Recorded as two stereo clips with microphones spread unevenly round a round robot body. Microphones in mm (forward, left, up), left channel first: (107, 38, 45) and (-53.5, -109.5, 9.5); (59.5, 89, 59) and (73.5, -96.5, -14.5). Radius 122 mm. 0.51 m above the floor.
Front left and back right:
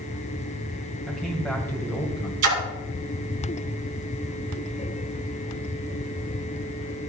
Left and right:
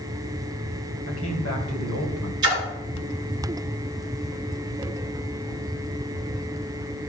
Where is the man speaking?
135° left, 2.5 m; by 2.3 s 115° left, 2 m.